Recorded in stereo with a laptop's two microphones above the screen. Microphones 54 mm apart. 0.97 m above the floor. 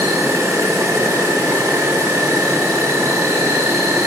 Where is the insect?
80° right, 1.6 m.